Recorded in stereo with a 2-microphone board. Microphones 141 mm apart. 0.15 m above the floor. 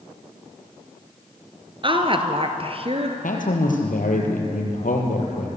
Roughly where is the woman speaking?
Right.